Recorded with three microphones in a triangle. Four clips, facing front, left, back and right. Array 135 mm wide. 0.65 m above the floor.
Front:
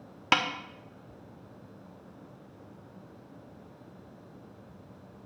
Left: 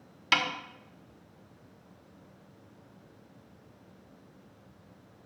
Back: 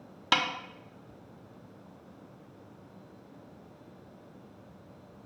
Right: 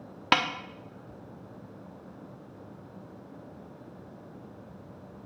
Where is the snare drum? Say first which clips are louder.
Right 4 dB, front 2 dB; 75° right, 1.0 m.